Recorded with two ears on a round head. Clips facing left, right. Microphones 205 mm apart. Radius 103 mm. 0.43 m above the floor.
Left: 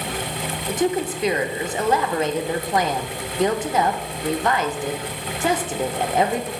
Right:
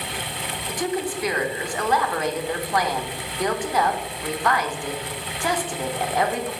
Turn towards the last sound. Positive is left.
turn(degrees=20)  # may be behind; listen again after turning